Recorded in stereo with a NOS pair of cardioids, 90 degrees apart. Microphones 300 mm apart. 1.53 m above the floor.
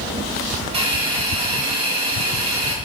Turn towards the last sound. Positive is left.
turn(degrees=-20)